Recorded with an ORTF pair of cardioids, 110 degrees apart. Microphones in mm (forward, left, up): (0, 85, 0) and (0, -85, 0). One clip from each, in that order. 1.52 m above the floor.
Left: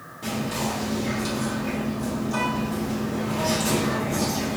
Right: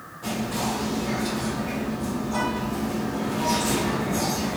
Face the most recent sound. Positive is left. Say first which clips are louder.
# even
turn(degrees=40)